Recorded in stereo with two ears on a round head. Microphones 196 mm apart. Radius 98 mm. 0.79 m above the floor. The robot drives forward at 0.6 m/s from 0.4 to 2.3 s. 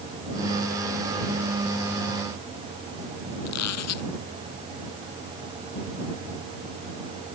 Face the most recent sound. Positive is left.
turn(degrees=80)